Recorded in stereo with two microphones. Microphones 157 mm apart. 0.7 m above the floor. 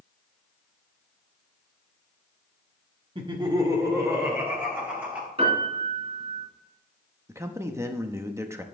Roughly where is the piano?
Right.